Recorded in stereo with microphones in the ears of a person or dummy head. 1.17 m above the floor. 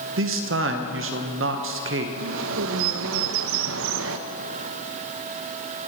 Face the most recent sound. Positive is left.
turn(degrees=-75)  # may be behind; listen again after turning